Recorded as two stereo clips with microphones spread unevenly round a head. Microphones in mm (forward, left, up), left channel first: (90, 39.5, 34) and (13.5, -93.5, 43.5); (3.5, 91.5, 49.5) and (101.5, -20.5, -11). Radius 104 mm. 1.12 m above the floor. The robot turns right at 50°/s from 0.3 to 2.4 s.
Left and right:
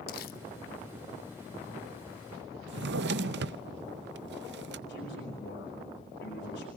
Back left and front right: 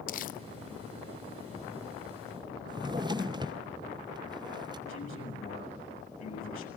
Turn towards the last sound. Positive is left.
turn(degrees=100)